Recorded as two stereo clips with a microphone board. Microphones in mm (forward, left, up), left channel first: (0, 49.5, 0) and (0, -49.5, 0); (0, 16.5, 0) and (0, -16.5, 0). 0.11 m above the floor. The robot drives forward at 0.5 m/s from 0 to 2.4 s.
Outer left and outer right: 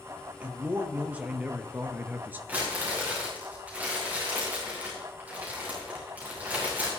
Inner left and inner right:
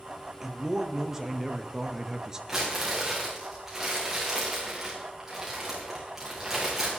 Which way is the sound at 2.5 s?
20° right (ahead or behind).